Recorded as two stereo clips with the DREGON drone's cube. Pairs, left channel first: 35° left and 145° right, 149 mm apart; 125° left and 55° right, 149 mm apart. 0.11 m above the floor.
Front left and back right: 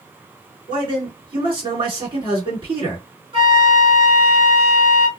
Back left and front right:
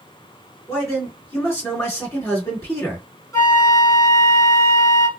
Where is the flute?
175° right, 2.0 m.